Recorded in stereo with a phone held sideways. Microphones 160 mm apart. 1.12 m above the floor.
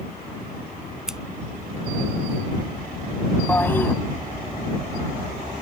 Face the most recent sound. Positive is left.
turn(degrees=15)  # may be behind; listen again after turning